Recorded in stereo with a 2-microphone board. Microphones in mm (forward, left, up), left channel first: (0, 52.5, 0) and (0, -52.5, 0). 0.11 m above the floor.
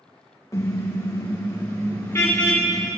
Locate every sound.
0.5 s a car horn: 30° left (ahead or behind), 3 m; by 2.9 s 20° left (ahead or behind), 5 m